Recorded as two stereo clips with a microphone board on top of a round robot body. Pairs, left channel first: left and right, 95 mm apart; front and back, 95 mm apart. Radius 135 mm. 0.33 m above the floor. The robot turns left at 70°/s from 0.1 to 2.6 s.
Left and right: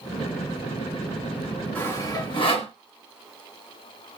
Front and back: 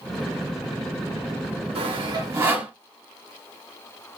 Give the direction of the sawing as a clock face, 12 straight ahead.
7 o'clock.